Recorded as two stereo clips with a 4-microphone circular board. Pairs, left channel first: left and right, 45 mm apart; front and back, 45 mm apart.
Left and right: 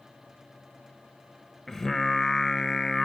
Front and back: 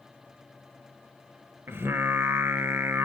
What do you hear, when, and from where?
1.7 s singing: 170° left, 0.9 m